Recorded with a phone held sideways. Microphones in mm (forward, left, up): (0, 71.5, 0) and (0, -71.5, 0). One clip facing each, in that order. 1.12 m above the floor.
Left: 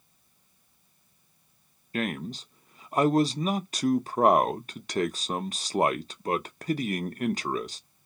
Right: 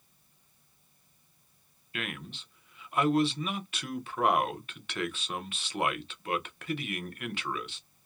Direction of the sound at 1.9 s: 40° left (ahead or behind).